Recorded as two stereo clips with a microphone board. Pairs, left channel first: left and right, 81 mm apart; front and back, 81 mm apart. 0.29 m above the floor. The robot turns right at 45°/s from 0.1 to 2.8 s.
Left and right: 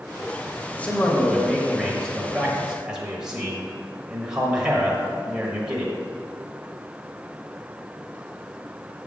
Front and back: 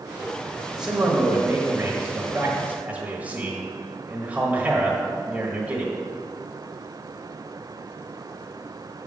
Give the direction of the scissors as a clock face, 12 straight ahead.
I don't hear scissors.